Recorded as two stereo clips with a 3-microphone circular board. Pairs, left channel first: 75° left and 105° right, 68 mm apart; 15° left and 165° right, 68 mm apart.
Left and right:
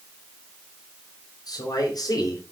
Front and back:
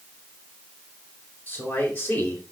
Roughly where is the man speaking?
Left.